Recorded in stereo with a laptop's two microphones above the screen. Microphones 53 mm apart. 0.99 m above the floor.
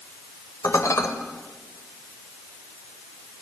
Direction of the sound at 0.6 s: 80° left.